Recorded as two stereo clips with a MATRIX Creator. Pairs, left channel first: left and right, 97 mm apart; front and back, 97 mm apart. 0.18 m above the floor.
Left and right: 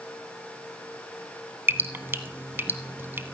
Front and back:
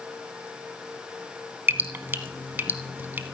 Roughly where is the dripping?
Behind right.